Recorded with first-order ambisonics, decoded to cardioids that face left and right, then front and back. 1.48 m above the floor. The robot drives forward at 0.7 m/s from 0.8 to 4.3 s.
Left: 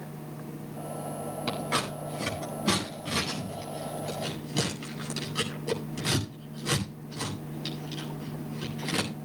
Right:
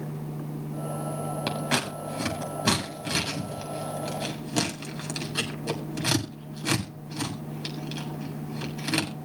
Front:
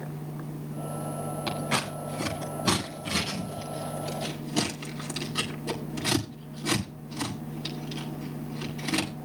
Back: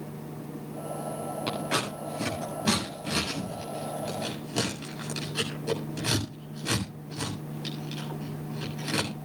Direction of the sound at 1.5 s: 85° right.